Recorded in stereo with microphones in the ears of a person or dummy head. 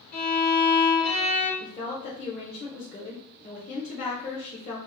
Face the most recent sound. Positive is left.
turn(degrees=40)  # may be behind; listen again after turning